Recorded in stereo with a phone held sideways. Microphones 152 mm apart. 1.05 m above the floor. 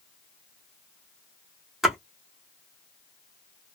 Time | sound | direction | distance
1.8 | a splash | centre (ahead or behind) | 1.0 m